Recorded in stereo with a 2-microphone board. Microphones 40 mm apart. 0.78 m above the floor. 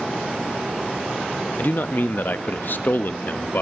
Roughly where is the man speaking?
Left.